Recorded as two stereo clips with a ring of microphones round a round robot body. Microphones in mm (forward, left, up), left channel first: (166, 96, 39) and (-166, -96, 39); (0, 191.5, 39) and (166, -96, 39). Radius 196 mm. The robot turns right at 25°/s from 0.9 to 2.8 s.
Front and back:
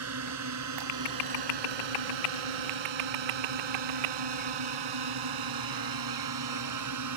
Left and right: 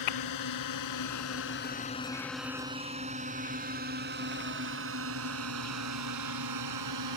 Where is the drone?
160° left; by 7.2 s 100° right.